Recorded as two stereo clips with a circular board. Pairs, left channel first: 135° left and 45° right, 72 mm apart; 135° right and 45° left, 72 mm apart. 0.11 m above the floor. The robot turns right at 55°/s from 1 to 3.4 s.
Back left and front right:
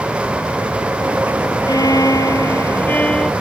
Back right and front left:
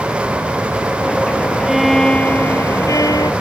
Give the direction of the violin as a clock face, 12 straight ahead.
8 o'clock.